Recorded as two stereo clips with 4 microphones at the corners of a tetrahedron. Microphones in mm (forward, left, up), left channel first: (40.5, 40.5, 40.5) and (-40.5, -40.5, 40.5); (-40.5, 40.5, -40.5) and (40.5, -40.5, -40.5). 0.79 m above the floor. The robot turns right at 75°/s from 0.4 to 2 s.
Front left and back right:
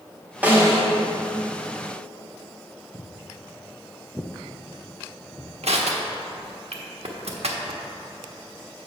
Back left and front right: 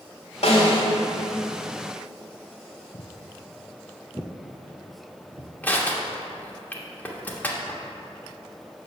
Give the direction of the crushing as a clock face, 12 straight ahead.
5 o'clock.